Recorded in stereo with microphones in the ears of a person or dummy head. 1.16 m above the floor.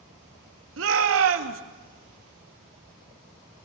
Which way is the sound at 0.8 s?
70° right (ahead or behind).